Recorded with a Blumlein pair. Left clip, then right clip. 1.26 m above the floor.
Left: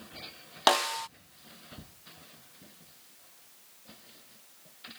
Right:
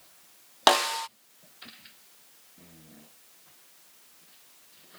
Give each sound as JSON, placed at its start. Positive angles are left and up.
{"t": 0.7, "sound": "a snare drum", "azimuth_deg": -10}